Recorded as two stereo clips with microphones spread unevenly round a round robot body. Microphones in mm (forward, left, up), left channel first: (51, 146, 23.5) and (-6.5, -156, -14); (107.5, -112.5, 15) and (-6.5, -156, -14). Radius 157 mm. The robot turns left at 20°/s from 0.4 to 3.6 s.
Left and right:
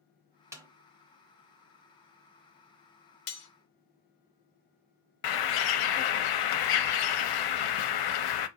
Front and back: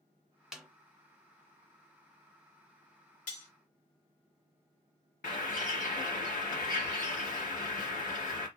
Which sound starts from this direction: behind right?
A snare drum, at 0.5 s.